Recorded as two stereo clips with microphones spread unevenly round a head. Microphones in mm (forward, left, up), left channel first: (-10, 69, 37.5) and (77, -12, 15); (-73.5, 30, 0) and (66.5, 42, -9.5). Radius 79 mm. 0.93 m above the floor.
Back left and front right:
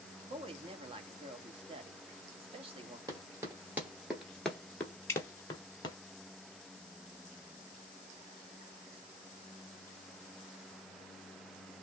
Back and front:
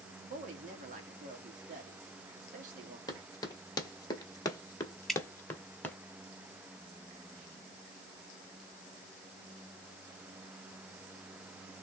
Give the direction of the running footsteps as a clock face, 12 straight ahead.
4 o'clock.